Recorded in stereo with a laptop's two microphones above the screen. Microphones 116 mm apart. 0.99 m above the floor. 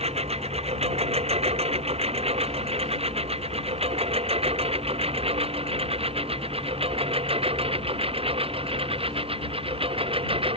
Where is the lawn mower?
60° right (ahead or behind); by 10.6 s 55° right (ahead or behind).